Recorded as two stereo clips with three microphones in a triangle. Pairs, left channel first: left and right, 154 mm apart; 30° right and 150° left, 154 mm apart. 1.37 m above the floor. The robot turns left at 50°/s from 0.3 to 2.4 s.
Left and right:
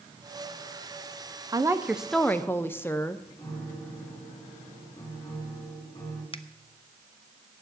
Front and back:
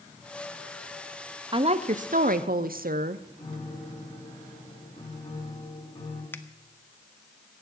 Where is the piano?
20° left, 3.5 m.